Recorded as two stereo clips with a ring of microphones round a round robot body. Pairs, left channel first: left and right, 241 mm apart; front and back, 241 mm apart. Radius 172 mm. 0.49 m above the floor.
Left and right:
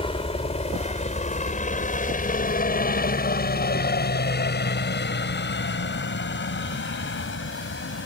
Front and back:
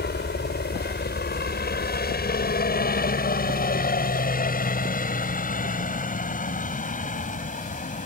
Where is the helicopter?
30° left; by 8.1 s 55° left.